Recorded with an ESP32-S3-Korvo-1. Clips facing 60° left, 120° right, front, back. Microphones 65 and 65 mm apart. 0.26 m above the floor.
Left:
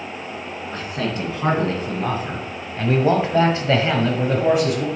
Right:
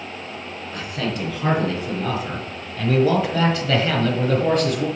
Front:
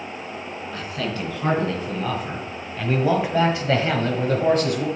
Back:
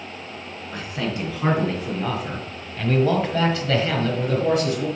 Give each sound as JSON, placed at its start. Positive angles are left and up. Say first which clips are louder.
{"t": 0.7, "sound": "a man speaking", "louder": "left 1 dB, back 1 dB", "azimuth_deg": 110, "distance_m": 3.0}